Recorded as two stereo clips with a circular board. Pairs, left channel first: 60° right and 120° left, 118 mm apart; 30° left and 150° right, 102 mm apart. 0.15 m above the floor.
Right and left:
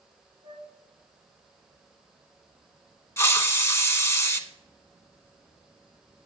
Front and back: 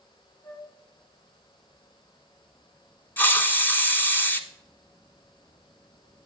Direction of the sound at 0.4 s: 100° left.